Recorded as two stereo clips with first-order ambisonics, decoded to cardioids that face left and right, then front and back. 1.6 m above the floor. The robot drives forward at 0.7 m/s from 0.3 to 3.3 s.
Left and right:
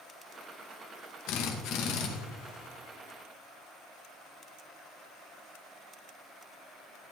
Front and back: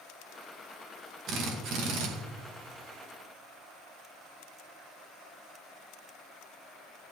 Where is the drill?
125° left, 1.9 m; by 2.1 s 135° left, 2.5 m.